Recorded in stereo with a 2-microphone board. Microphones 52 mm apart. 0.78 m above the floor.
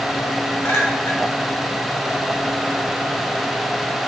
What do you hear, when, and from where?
0.6 s a clink: 75° left (ahead or behind), 2.5 m